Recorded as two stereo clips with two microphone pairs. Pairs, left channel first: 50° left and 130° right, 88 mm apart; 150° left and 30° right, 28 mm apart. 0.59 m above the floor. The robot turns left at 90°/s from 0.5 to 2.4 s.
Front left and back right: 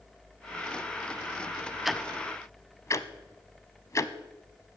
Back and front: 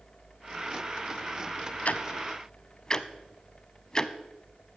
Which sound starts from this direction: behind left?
Ticking, at 1.9 s.